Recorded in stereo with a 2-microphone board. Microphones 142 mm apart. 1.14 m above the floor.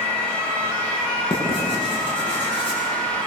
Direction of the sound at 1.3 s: 35° left (ahead or behind).